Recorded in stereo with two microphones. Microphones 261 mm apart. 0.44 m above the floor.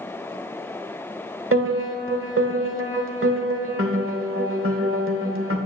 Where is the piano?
60° right (ahead or behind), 1.0 m.